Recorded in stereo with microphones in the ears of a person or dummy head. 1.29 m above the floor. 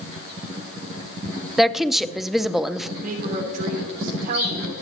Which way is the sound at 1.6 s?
Centre (ahead or behind).